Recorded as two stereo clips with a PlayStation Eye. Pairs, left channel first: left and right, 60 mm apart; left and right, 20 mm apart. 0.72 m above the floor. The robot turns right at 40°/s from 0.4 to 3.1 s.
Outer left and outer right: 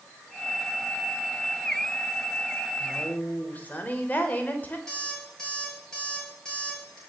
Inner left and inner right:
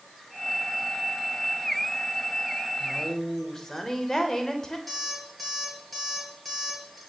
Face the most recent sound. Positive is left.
turn(degrees=10)  # may be behind; listen again after turning